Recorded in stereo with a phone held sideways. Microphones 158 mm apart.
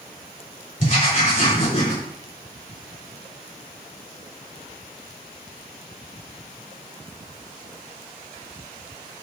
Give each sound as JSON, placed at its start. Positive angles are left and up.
{"t": 0.8, "sound": "writing", "side_deg": 55, "distance_m": 4.0}